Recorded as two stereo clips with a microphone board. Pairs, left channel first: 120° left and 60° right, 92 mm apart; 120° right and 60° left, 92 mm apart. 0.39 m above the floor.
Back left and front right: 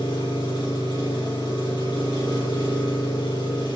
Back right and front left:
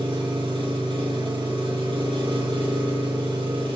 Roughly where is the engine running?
Left.